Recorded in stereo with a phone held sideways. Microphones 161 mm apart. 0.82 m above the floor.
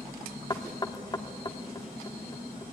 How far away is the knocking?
About 1.4 m.